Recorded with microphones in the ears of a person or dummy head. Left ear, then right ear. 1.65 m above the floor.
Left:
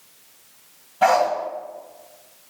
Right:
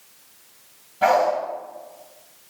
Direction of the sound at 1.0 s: 30° left (ahead or behind).